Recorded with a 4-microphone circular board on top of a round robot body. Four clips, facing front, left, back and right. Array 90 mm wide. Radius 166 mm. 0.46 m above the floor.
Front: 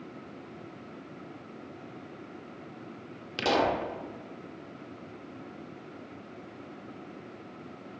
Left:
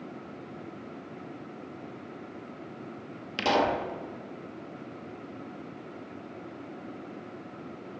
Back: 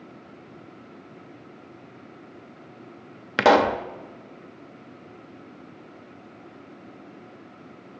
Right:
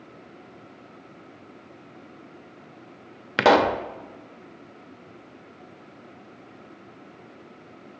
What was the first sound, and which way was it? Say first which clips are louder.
A pop: right 8 dB, back 9 dB; 145° right.